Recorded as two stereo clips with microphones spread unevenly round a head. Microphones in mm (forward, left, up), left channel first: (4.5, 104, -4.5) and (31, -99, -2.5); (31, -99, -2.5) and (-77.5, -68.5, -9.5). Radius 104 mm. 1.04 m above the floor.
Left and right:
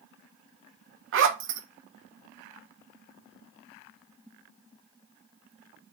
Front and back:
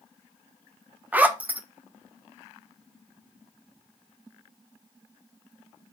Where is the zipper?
120° right, 0.7 m.